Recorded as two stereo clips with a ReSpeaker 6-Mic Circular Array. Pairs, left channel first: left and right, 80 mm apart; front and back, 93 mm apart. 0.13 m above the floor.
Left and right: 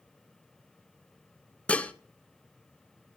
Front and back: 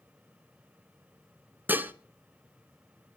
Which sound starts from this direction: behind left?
Dishes clattering, at 1.7 s.